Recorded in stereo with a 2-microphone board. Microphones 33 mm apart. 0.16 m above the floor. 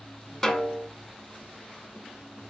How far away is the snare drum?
About 0.6 m.